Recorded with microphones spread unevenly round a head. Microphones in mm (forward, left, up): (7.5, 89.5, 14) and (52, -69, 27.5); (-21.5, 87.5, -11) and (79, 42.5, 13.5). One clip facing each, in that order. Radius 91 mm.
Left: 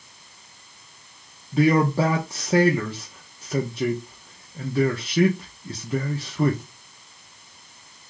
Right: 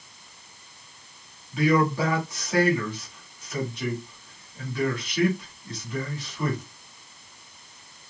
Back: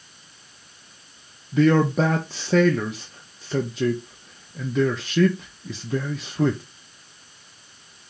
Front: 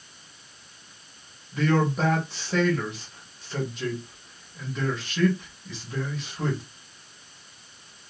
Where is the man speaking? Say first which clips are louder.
Left 3 dB, back 6 dB; 170° left, 0.7 m.